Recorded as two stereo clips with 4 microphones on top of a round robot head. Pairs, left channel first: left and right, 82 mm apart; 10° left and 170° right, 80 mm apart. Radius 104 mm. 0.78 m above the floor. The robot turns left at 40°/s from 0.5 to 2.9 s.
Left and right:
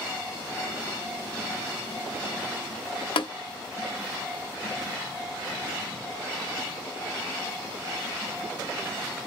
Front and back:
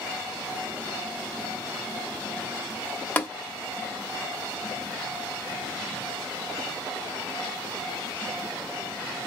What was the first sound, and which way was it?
Tapping, 80° left.